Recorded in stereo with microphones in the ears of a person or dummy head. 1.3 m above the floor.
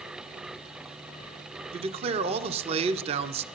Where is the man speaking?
30° right (ahead or behind), 0.7 m.